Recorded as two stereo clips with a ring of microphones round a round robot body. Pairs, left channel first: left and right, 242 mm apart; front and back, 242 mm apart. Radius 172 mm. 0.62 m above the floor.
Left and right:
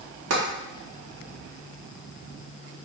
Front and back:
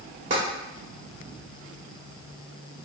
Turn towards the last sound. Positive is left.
turn(degrees=-115)